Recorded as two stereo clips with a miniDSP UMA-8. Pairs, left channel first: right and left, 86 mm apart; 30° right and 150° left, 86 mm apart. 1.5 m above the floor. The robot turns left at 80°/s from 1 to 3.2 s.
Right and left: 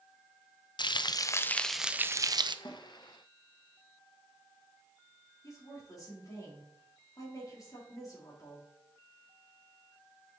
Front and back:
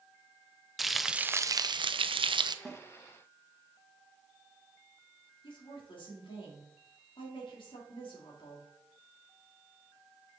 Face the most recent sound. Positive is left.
turn(degrees=-40)